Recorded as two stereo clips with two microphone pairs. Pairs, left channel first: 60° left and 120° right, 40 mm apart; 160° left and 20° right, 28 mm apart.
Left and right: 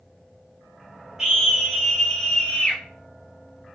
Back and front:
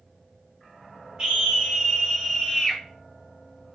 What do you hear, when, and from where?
1.2 s a scream: 45° right, 1.8 m; by 2.8 s 55° left, 1.5 m